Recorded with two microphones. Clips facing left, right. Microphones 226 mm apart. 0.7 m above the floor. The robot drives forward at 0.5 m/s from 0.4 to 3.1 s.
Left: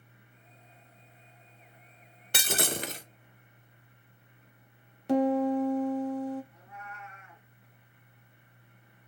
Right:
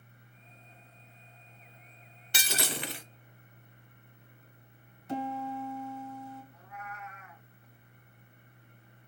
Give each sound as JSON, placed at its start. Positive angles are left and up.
{"t": 2.3, "sound": "breaking glass", "side_deg": 55, "distance_m": 0.5}
{"t": 5.1, "sound": "a piano", "side_deg": 70, "distance_m": 0.9}
{"t": 6.5, "sound": "a cat meowing", "side_deg": 30, "distance_m": 1.0}